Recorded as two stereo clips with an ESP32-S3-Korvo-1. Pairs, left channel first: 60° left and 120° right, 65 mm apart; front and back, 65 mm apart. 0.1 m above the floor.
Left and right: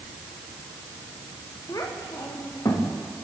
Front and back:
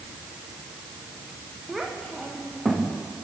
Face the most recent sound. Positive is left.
turn(degrees=90)